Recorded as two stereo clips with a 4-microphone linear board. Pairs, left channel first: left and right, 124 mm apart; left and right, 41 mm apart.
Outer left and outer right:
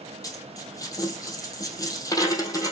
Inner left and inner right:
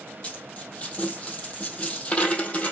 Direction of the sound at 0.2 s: 25° left (ahead or behind).